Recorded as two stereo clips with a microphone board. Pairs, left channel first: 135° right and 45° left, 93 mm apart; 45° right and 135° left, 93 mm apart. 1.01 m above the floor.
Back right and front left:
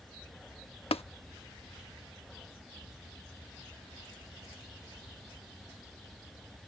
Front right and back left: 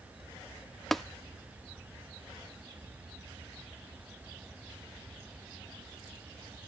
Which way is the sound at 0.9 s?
130° right.